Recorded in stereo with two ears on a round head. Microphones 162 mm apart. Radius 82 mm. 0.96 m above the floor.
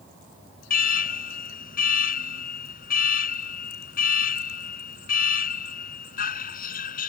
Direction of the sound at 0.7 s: 50° left (ahead or behind).